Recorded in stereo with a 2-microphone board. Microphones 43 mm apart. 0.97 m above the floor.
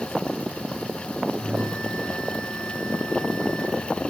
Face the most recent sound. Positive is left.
turn(degrees=5)  # may be behind; listen again after turning